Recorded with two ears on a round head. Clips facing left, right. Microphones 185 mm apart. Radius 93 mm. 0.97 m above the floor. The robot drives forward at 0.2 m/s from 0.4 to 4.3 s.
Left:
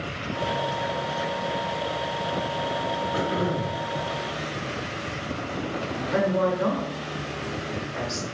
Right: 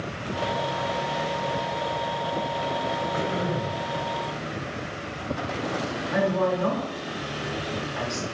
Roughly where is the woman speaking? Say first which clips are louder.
Left 1 dB; left.